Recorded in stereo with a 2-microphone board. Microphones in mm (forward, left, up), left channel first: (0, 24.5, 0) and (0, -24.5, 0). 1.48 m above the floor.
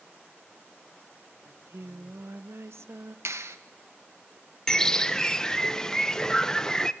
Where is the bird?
15° left (ahead or behind), 0.6 m.